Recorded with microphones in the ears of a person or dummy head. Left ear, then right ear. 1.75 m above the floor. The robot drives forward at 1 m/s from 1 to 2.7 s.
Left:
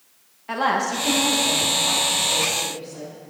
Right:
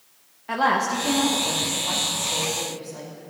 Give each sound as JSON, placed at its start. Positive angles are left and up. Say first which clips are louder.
{"t": 0.5, "sound": "a woman speaking", "louder": "even", "side_deg": 0, "distance_m": 0.9}